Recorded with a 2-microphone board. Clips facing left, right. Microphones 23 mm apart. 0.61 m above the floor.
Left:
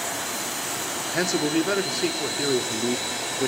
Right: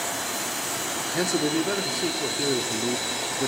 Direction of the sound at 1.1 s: 35° left (ahead or behind).